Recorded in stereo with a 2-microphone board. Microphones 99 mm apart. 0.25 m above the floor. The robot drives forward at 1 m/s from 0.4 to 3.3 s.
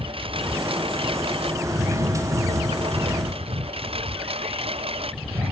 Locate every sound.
0.0 s a lawn mower: 65° right (ahead or behind); by 5.5 s 75° right (ahead or behind)